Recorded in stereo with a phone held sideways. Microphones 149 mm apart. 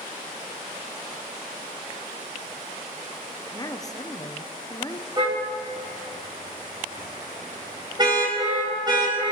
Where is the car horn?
30° right (ahead or behind), 4 m.